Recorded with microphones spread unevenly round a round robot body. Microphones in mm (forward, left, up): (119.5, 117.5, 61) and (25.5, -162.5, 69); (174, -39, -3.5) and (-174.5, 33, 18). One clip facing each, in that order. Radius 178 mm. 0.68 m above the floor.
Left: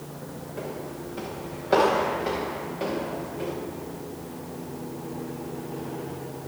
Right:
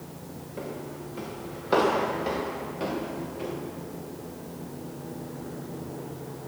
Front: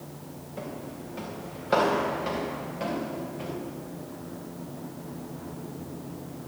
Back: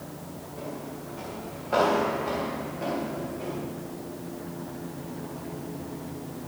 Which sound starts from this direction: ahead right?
Footsteps, at 0.6 s.